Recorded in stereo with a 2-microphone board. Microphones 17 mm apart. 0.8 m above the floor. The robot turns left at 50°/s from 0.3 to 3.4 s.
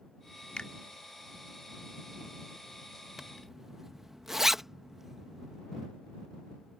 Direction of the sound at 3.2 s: 20° right (ahead or behind).